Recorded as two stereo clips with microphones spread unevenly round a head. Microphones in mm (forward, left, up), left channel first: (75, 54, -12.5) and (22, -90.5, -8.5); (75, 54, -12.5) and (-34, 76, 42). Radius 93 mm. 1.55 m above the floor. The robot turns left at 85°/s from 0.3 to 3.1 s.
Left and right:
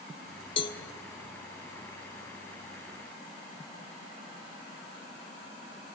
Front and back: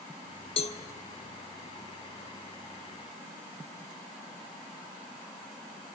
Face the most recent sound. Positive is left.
turn(degrees=180)